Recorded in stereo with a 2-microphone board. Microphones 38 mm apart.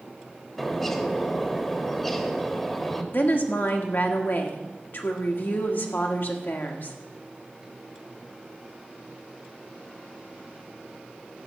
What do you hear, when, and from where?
0.6 s a bird: 10° left (ahead or behind), 1.2 m
3.1 s a woman speaking: 60° left (ahead or behind), 1.6 m